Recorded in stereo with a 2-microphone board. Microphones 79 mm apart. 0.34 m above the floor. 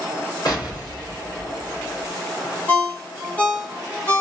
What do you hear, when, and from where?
0.5 s an explosion: 60° left (ahead or behind), 1.9 m
2.7 s a ringtone: 20° left (ahead or behind), 0.8 m